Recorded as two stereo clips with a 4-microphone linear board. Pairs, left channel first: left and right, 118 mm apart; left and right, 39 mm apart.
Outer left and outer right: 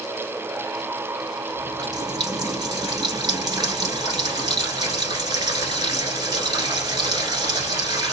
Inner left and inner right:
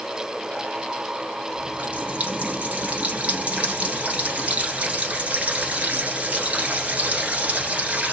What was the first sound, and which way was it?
A running tap, 35° right (ahead or behind).